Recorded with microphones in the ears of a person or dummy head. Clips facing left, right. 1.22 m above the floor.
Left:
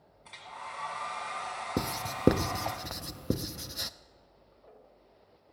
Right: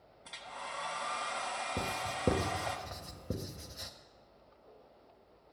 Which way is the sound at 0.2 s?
5° right (ahead or behind).